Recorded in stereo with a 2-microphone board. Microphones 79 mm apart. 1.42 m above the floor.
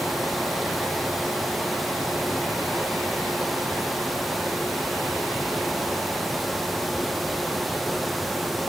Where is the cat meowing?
I don't hear a cat meowing.